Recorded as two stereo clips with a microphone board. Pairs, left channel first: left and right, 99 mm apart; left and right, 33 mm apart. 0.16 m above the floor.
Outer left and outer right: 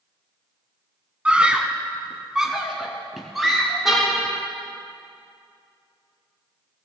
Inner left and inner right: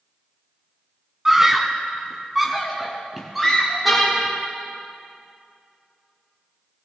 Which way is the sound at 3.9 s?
5° right (ahead or behind).